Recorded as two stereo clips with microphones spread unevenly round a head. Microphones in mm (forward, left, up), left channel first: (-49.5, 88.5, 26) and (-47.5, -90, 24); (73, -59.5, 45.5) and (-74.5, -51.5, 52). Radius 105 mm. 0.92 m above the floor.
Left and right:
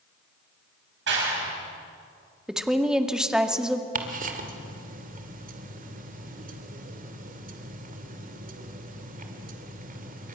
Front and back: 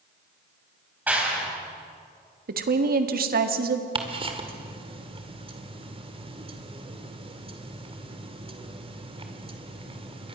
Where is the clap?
105° right, 6.5 m.